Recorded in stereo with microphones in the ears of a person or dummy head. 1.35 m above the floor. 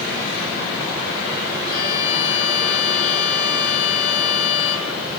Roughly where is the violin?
Left.